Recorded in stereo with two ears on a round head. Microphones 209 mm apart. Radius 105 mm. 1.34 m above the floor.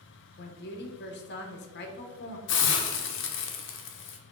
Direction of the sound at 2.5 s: 55° left (ahead or behind).